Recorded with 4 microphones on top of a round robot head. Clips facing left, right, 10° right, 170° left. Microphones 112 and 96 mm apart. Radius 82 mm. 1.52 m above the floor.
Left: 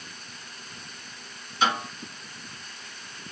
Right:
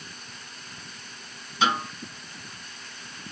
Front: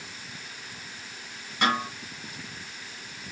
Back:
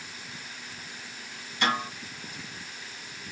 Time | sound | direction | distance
1.6 | a snare drum | 70° right | 1.7 m